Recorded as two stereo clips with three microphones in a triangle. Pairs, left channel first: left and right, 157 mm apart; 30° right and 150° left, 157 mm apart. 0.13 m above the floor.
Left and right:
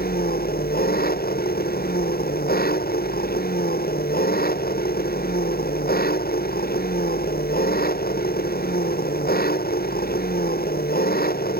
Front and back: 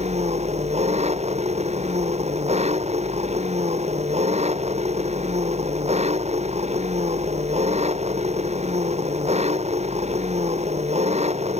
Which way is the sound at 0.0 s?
105° left.